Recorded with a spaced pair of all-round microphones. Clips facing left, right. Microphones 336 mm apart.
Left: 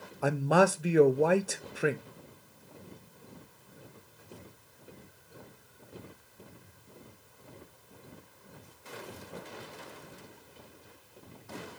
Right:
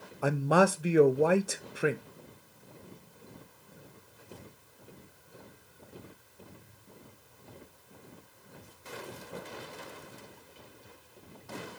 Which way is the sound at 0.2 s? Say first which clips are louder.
Even; centre (ahead or behind).